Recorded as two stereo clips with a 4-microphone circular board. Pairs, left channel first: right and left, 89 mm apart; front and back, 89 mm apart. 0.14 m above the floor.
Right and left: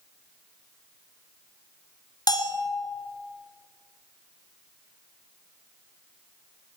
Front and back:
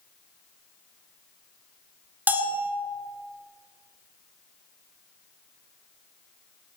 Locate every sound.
2.3 s a bell: 115° right, 1.7 m